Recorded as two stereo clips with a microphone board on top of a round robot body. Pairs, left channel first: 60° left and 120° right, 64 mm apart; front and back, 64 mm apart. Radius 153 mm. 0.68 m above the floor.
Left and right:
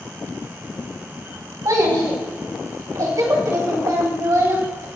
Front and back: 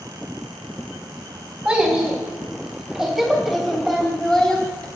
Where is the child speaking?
110° right, 4 m; by 4.8 s 80° right, 3 m.